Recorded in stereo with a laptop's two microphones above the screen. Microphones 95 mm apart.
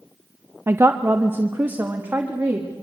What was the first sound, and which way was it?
A woman speaking, 25° right (ahead or behind).